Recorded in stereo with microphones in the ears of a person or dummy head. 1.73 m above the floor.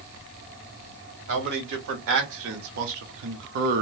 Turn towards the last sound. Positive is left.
turn(degrees=-45)  # may be behind; listen again after turning